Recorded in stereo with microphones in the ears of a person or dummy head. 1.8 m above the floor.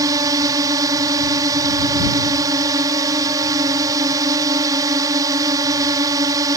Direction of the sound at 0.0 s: 20° right (ahead or behind).